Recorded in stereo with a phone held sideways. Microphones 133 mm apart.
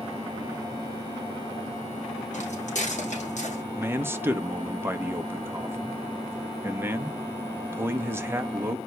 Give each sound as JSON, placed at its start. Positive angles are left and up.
{"t": 2.3, "sound": "footsteps", "side_deg": 65, "distance_m": 4.0}
{"t": 3.7, "sound": "a man speaking", "side_deg": -20, "distance_m": 1.1}